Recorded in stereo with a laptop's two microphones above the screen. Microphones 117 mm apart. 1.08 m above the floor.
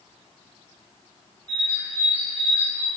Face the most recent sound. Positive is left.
turn(degrees=65)  # may be behind; listen again after turning